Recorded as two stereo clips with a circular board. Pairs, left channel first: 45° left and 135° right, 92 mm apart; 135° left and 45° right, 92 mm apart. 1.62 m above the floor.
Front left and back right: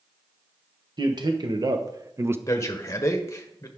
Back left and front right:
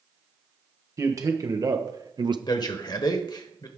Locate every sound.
1.0 s a man speaking: 100° right, 1.5 m; by 2.4 s 75° right, 0.5 m
2.5 s a man speaking: 100° left, 1.0 m